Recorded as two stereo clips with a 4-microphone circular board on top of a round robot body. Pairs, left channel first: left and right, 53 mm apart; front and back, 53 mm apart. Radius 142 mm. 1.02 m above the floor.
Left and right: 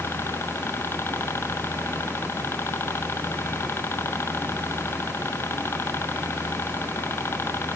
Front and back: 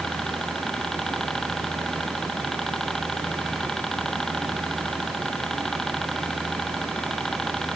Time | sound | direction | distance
0.0 | a helicopter | 80° left | ?